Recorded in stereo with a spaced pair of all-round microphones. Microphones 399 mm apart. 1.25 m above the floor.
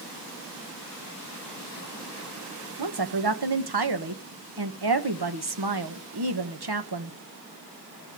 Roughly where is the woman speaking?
Right.